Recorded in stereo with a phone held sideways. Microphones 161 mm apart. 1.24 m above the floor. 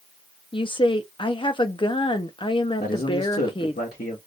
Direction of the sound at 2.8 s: 80° left.